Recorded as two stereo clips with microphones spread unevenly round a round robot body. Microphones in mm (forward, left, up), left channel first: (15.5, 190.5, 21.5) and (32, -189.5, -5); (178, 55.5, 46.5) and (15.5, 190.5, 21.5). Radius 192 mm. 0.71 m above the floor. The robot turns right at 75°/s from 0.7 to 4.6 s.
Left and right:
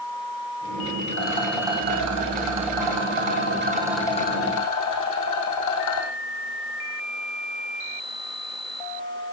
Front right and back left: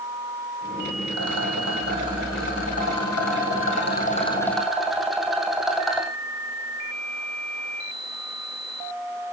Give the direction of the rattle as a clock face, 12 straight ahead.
7 o'clock.